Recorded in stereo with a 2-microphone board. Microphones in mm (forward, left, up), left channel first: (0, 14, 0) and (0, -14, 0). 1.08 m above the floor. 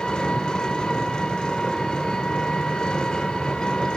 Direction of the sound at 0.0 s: 30° left (ahead or behind).